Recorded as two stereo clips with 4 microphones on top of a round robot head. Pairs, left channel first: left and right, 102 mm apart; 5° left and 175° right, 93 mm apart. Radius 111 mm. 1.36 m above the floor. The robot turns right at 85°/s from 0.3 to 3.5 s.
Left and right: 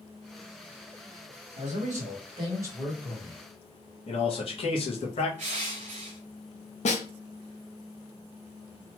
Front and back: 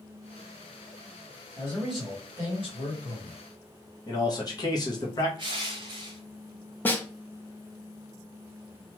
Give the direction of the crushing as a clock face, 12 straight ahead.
4 o'clock.